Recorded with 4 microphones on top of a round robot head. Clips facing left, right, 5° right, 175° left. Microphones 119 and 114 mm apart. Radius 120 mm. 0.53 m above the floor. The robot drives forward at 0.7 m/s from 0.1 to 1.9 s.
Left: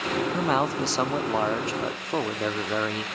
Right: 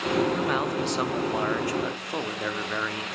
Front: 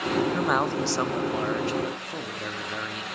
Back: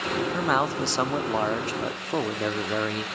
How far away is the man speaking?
About 0.9 m.